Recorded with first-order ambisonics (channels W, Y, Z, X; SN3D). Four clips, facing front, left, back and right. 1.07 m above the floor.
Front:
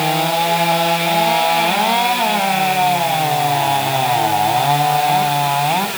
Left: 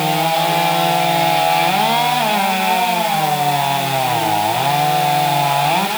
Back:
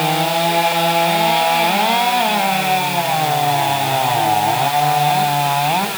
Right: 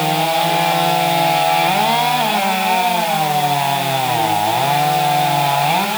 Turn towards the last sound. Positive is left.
No sound to turn to.